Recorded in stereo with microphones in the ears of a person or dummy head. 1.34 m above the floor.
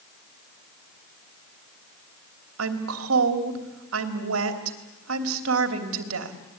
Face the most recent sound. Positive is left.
turn(degrees=-80)